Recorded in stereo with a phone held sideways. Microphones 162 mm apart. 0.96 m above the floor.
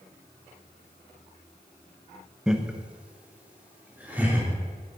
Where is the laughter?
5° right (ahead or behind), 1.0 m; by 4.5 s 10° right (ahead or behind), 3.5 m.